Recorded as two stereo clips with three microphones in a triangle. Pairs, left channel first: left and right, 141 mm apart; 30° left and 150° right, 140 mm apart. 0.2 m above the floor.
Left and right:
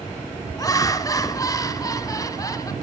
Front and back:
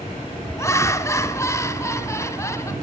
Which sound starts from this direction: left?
Laughter, at 0.6 s.